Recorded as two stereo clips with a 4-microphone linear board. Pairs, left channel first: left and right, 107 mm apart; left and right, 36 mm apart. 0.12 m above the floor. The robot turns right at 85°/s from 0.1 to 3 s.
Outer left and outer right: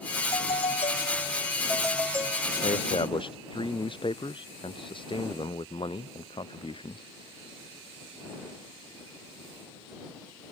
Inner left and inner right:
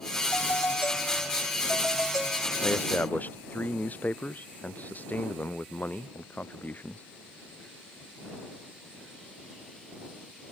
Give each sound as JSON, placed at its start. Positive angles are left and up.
{"t": 0.3, "sound": "a doorbell", "azimuth_deg": 50}
{"t": 2.6, "sound": "a man speaking", "azimuth_deg": 95}